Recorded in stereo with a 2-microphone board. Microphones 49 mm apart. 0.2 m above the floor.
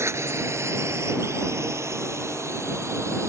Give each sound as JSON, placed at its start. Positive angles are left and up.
{"t": 0.0, "sound": "a drone", "side_deg": -65}